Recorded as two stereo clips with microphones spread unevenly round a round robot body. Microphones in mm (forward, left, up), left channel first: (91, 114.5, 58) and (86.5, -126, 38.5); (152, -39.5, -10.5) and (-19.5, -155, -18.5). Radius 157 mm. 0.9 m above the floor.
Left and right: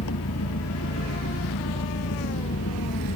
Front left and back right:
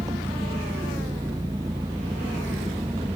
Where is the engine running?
135° left.